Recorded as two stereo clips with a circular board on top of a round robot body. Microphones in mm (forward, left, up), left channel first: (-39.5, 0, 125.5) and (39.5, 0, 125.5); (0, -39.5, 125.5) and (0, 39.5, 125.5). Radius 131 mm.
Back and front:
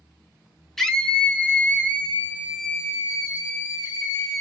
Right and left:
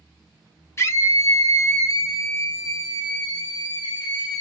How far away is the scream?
About 1.4 m.